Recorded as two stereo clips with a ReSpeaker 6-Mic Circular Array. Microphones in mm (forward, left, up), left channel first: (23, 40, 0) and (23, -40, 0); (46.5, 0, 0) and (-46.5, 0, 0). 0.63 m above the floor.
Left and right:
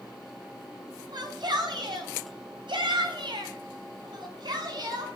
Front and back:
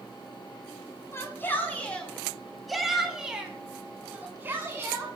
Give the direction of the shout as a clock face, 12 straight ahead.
2 o'clock.